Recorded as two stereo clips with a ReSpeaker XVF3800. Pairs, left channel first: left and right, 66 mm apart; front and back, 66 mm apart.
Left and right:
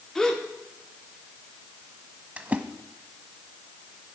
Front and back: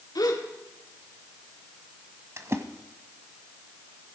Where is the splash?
150° right, 1.2 m.